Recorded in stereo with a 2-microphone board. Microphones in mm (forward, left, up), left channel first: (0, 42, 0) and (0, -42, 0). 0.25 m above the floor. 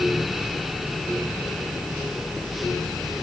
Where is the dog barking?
No dog barking in this recording.